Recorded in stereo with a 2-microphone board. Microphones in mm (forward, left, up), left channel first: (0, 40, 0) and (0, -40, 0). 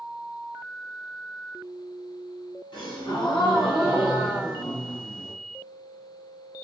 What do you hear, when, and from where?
2.7 s a gasp: 70° left (ahead or behind), 1.6 m